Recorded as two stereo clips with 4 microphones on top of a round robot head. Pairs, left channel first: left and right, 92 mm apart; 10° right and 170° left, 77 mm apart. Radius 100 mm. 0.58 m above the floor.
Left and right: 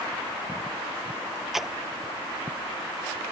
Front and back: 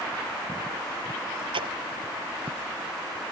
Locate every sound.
1.5 s a splash: 175° right